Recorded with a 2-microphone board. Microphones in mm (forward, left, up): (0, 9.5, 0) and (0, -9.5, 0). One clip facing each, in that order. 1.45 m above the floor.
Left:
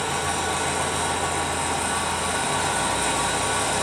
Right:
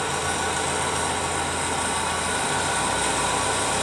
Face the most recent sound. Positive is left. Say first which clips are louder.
# even
turn(degrees=-25)  # may be behind; listen again after turning